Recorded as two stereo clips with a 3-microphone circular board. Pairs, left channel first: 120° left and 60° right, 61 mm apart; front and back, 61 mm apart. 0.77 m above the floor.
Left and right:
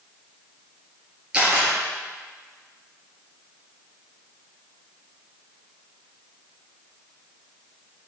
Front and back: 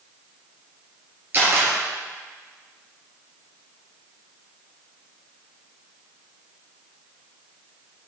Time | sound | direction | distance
1.3 | a camera shutter | 130° right | 3 m